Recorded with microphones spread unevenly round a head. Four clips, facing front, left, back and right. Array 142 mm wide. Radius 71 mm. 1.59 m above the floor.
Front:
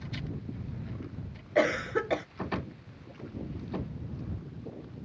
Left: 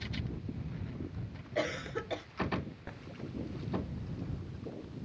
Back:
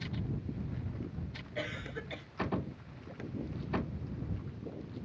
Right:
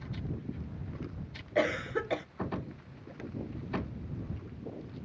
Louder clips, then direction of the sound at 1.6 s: Right 5 dB, front 15 dB; 20° right.